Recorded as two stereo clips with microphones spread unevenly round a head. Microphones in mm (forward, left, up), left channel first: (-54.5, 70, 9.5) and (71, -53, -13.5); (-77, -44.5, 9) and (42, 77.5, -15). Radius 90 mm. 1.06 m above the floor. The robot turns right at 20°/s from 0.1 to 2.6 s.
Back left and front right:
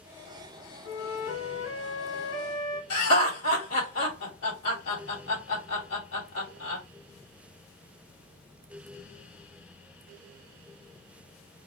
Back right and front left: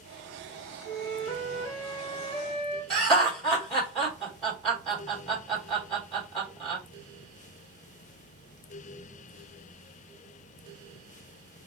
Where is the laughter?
140° left, 2.5 m.